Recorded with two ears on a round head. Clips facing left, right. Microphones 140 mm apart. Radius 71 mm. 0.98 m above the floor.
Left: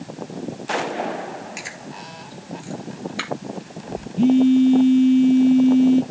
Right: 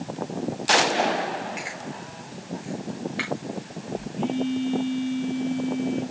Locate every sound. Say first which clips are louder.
1.6 s chewing: right 1 dB; 50° left (ahead or behind), 3.5 m
4.2 s a phone buzzing: left 12 dB; 45° left (ahead or behind), 1.3 m